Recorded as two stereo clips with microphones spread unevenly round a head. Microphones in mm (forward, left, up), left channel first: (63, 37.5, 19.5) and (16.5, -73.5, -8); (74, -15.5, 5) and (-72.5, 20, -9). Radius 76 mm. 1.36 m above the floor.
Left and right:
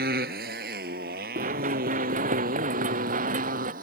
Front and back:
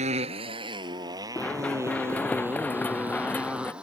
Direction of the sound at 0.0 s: 145° right.